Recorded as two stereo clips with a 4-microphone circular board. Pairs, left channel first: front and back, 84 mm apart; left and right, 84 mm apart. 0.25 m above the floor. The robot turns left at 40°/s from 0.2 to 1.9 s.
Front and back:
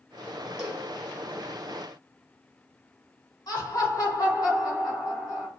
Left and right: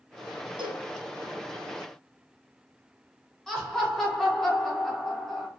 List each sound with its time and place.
0.6 s a cowbell: 95° right, 1.2 m; by 0.9 s 110° right, 1.2 m
3.5 s laughter: 10° left, 1.9 m